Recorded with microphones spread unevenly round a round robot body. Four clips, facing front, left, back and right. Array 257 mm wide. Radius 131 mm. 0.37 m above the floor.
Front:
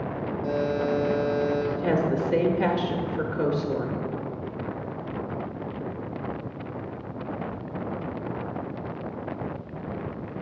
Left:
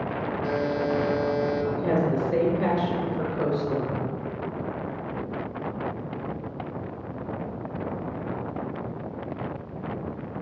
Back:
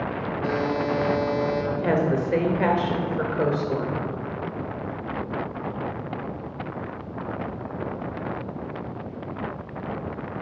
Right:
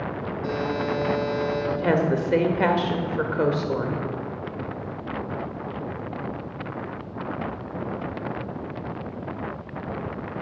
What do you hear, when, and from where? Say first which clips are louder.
0.4 s a buzzer: even, back 1 dB; 170° left, 1.9 m
1.7 s a woman speaking: right 5 dB, back 2 dB; 90° right, 1.0 m